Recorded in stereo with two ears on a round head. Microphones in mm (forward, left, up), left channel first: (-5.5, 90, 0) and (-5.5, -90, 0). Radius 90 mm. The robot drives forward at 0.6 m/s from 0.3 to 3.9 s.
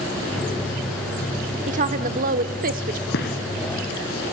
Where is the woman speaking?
40° right (ahead or behind), 1.2 m.